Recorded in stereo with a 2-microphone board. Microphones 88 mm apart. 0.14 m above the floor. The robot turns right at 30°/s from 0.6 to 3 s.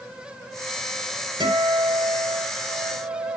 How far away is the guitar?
About 3.5 m.